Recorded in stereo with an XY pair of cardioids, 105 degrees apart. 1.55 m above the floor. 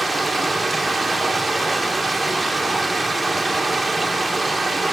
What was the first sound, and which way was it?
Running water, 15° right.